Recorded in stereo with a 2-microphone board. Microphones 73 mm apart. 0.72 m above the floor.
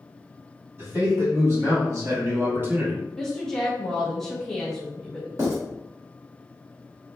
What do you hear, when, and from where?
0.8 s a man speaking: 40° right (ahead or behind), 1.4 m; by 3.0 s 20° right (ahead or behind), 0.7 m
3.2 s a woman speaking: 5° left (ahead or behind), 0.8 m
5.4 s writing: 45° right (ahead or behind), 1.5 m